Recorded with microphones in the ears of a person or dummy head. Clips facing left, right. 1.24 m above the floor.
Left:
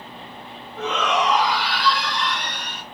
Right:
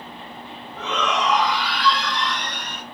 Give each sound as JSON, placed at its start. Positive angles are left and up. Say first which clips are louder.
{"t": 0.8, "sound": "a shout", "louder": "left 2 dB", "side_deg": 45, "distance_m": 2.0}